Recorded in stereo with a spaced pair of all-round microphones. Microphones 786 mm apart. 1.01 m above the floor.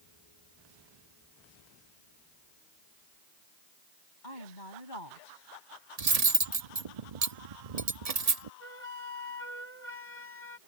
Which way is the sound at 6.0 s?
50° right (ahead or behind).